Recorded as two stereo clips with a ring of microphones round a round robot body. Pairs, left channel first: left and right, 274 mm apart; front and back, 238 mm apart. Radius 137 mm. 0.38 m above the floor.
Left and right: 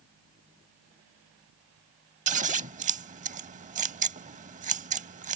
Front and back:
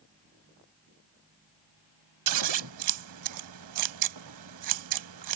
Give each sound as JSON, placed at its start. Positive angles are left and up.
{"t": 2.3, "sound": "scissors", "azimuth_deg": -155}